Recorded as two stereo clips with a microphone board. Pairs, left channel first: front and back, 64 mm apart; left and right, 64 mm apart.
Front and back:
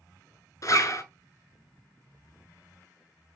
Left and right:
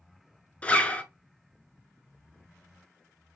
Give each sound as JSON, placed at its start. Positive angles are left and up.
{"t": 0.6, "sound": "a zipper", "azimuth_deg": 25, "distance_m": 0.6}